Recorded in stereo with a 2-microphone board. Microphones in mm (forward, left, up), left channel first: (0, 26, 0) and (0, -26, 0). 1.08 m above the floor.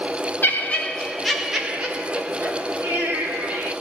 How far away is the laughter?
About 1.0 m.